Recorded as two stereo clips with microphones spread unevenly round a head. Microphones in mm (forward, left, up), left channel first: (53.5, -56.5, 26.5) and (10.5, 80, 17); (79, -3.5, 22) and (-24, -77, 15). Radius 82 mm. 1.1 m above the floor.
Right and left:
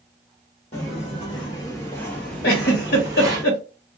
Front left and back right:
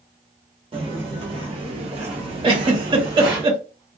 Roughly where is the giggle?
Right.